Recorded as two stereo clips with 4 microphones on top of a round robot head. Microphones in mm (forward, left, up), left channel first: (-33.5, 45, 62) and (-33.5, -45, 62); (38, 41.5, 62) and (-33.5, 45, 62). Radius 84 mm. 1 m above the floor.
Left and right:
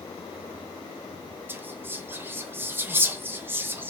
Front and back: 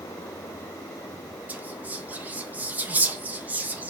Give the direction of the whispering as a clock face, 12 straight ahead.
5 o'clock.